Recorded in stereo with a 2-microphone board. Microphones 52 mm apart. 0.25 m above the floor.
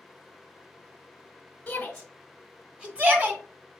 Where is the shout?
25° left (ahead or behind), 1.2 m; by 3.4 s 40° right (ahead or behind), 1.5 m.